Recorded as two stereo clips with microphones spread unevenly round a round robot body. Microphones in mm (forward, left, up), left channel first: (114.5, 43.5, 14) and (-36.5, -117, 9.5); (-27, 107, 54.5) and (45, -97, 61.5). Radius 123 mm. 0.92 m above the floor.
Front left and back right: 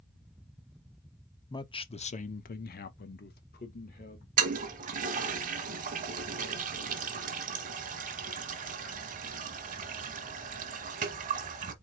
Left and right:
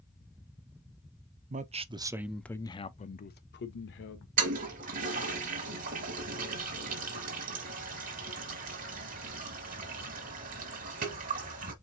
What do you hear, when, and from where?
1.5 s a man speaking: 25° right, 0.8 m; by 4.3 s 100° left, 1.1 m
4.4 s a toilet flushing: 105° right, 0.9 m